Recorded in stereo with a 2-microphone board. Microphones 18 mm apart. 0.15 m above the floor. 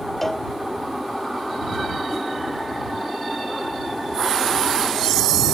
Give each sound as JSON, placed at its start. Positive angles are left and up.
{"t": 0.2, "sound": "a cowbell", "side_deg": 10}